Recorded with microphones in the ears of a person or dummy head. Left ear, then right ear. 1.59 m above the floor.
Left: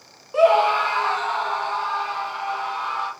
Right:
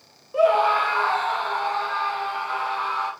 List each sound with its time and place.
0.3 s a scream: 30° left (ahead or behind), 0.6 m; by 3.1 s 5° left (ahead or behind), 3 m